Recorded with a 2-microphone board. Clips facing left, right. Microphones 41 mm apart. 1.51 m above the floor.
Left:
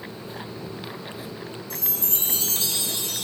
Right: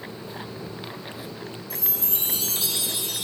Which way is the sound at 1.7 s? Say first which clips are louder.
Left 1 dB; 5° right (ahead or behind).